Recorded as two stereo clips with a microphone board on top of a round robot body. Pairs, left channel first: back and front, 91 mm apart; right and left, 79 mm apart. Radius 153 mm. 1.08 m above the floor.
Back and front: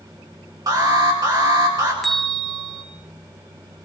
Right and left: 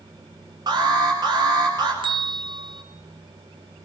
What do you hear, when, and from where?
0.7 s an alarm: 50° left, 9 m
2.0 s a bell: 90° left, 3 m